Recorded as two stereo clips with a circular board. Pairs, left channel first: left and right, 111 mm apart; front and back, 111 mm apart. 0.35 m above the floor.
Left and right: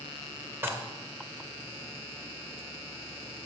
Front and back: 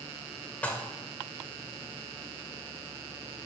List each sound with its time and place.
0.6 s dishes clattering: 55° right, 0.6 m